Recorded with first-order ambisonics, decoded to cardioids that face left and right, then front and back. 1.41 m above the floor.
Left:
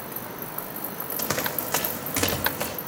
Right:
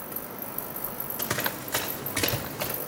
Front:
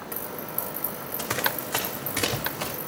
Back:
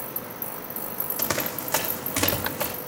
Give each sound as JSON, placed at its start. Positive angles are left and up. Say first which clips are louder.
{"t": 1.2, "sound": "running footsteps", "louder": "left 2 dB, front 1 dB", "azimuth_deg": 130, "distance_m": 2.5}